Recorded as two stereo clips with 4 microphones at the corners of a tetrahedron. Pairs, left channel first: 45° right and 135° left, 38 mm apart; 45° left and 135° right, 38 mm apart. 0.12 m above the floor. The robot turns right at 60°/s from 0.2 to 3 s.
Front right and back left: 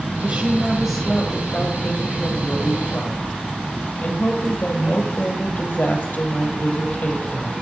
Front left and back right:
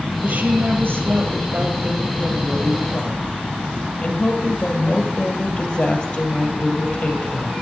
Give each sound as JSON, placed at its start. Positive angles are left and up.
{"t": 0.2, "sound": "a woman speaking", "azimuth_deg": 175, "distance_m": 2.5}